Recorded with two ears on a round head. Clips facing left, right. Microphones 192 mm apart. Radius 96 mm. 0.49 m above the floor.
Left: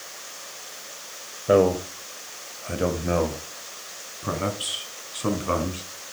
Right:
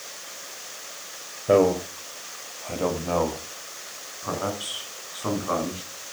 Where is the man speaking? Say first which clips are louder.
Even; 5° left (ahead or behind), 1.8 m; by 5.8 s 35° left (ahead or behind), 4.5 m.